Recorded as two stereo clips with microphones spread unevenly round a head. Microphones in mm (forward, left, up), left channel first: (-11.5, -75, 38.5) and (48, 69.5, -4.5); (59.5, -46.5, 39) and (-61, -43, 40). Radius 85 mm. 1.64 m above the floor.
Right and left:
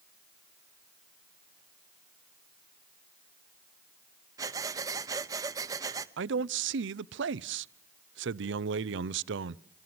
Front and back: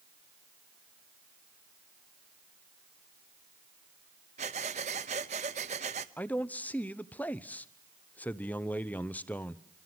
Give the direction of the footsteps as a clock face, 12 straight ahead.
I don't hear footsteps.